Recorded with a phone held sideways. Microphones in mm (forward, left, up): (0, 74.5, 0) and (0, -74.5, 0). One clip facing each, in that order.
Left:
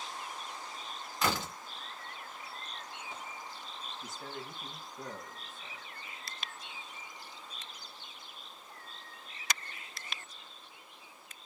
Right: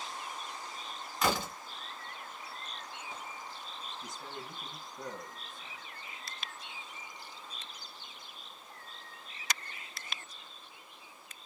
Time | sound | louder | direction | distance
1.2 | a door slam | right 2 dB | centre (ahead or behind) | 1.7 m
4.0 | a man speaking | left 1 dB | centre (ahead or behind) | 1.7 m